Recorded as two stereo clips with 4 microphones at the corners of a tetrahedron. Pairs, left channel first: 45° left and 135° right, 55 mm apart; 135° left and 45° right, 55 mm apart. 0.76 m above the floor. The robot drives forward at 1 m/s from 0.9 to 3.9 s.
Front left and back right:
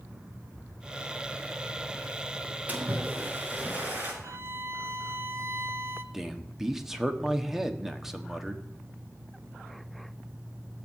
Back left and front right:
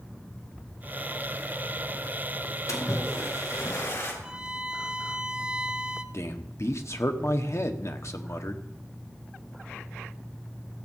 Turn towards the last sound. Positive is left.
turn(degrees=140)